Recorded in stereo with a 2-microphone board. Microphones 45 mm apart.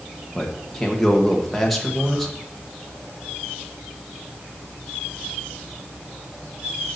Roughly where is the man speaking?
Centre.